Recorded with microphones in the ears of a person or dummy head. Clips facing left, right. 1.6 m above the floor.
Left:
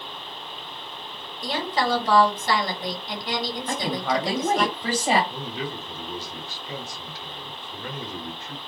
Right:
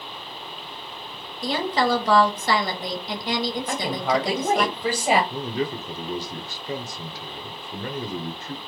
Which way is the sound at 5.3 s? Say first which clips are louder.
Right 5 dB; 40° right (ahead or behind).